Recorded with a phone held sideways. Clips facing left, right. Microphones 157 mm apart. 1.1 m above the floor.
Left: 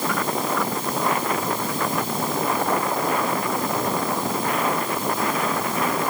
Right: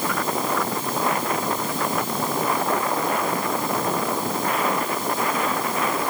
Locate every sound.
Only background noise.